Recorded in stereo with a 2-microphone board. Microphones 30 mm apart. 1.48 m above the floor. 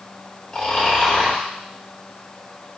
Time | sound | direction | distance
0.5 | snoring | 20° left (ahead or behind) | 1.2 m